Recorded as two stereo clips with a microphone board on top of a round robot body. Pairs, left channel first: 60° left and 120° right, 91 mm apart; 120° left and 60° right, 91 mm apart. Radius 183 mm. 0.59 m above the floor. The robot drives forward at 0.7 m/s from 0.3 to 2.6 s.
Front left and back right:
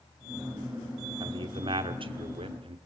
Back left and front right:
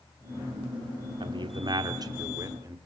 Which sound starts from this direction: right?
A man speaking, at 1.2 s.